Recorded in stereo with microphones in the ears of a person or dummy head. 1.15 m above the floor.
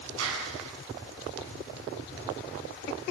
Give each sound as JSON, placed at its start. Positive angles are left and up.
{"t": 0.2, "sound": "a clap", "side_deg": -80, "distance_m": 7.0}